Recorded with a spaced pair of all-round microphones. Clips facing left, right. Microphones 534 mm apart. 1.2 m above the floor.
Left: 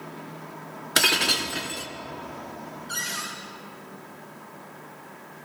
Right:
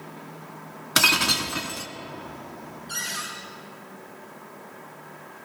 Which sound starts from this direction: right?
Breaking glass, at 1.0 s.